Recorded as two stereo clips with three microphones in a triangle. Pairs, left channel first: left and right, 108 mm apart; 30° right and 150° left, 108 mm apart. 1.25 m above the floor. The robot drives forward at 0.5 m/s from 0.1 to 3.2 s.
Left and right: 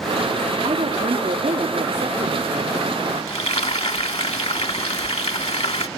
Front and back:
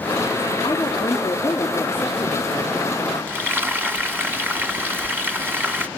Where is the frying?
80° left, 1.9 m.